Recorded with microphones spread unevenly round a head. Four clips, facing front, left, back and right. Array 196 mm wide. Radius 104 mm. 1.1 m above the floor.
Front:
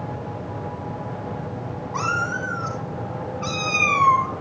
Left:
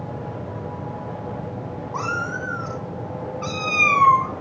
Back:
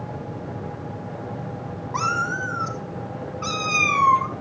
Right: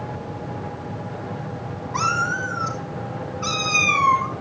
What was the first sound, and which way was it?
A cat meowing, 150° left.